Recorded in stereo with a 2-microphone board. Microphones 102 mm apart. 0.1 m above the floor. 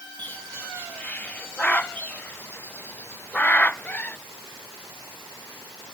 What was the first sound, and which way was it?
A bird, 15° left (ahead or behind).